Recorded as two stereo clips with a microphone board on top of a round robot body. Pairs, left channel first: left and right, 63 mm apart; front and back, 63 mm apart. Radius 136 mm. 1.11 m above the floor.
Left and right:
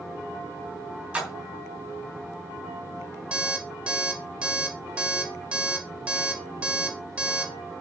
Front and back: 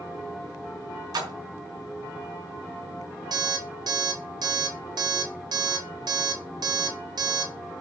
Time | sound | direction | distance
1.1 | a splash | 165° right | 3 m
3.3 | an alarm clock | 165° right | 2 m